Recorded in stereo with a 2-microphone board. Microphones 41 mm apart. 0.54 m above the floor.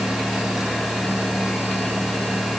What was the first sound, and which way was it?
Only background noise.